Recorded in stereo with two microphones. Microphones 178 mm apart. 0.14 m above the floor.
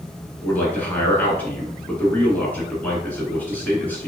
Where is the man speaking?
10° left (ahead or behind), 1.5 m.